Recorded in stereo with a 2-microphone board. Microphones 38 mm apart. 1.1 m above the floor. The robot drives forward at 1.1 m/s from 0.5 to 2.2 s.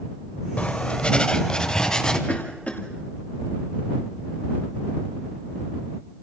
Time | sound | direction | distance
0.6 | writing | 35° left (ahead or behind) | 1.2 m
2.3 | a cough | 35° left (ahead or behind) | 2 m